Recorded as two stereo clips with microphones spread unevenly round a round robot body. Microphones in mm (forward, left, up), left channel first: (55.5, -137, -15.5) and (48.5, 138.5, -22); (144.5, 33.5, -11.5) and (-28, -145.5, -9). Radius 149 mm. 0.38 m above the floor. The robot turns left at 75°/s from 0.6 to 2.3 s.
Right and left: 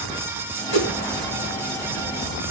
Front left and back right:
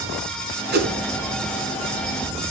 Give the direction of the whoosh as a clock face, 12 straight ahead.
3 o'clock.